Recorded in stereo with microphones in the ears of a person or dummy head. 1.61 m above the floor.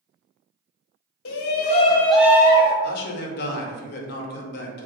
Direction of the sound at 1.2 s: 75° left (ahead or behind).